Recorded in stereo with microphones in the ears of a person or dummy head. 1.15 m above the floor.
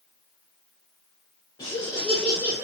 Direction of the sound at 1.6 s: 20° left (ahead or behind).